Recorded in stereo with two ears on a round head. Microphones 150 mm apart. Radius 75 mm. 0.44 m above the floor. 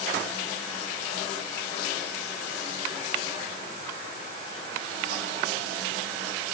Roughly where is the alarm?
I don't hear an alarm.